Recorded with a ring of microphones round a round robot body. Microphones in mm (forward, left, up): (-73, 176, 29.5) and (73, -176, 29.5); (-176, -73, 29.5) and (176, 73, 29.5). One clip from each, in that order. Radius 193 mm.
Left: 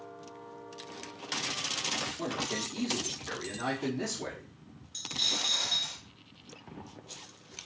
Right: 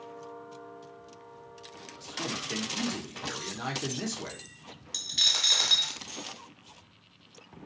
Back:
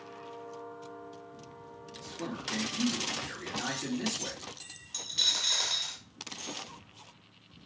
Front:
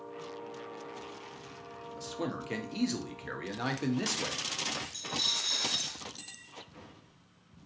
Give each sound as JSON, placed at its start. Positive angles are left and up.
{"t": 2.0, "sound": "a man speaking", "azimuth_deg": 5, "distance_m": 0.8}
{"t": 4.9, "sound": "a dropped coin", "azimuth_deg": -85, "distance_m": 0.6}